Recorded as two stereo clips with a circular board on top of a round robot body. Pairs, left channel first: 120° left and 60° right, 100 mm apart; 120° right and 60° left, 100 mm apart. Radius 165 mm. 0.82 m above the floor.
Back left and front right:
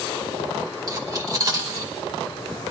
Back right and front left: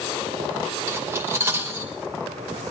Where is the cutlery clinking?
5° right, 2.5 m.